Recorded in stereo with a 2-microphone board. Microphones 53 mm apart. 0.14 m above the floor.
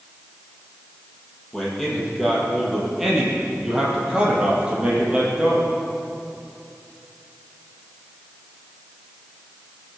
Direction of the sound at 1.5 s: Centre (ahead or behind).